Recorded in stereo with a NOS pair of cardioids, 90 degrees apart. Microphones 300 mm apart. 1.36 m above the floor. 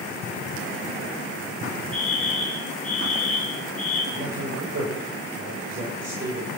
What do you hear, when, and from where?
1.9 s a fire alarm: 5° left, 7.5 m
4.1 s a man speaking: 40° right, 7 m